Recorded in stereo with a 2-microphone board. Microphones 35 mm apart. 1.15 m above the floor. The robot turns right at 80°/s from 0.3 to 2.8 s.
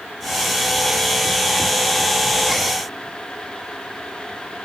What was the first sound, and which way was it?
Only background noise.